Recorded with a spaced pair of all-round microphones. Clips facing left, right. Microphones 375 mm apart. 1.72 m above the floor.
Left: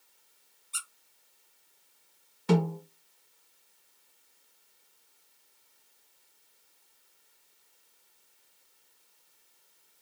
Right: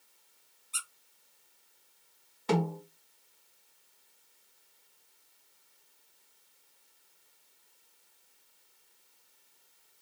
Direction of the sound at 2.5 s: 20° left (ahead or behind).